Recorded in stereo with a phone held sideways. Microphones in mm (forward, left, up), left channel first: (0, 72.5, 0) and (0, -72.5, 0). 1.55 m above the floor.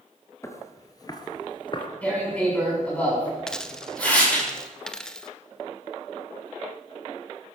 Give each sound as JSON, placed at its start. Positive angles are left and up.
{"t": 0.4, "sound": "footsteps", "side_deg": 20, "distance_m": 1.9}
{"t": 2.0, "sound": "tearing paper", "side_deg": 10, "distance_m": 8.0}
{"t": 3.5, "sound": "a dropped coin", "side_deg": 5, "distance_m": 0.8}